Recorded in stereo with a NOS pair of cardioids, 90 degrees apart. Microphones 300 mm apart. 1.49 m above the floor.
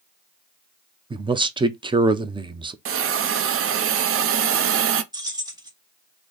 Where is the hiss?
50° right, 0.5 m.